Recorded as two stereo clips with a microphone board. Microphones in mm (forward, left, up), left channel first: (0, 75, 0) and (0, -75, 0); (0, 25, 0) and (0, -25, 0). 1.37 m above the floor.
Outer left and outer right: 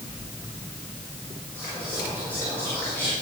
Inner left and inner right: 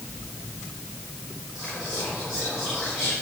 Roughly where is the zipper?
No zipper in this recording.